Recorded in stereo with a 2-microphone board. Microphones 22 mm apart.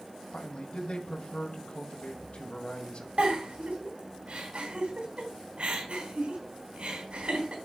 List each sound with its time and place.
0.3 s a man speaking: 50° left (ahead or behind), 1.9 m
3.2 s a giggle: 65° right (ahead or behind), 3.5 m